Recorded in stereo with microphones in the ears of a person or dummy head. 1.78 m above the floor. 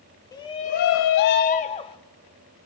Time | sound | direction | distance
0.3 | a shout | 15° left (ahead or behind) | 0.9 m